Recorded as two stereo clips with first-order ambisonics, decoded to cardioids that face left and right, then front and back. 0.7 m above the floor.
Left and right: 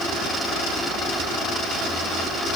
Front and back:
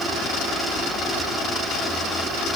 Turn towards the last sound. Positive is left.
No sound to turn to.